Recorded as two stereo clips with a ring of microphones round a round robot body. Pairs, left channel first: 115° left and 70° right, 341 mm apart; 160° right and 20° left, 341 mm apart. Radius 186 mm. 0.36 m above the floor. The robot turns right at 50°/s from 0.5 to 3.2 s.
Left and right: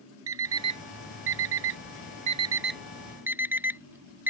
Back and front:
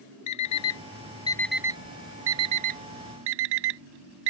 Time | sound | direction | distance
0.3 | an alarm clock | 120° right | ?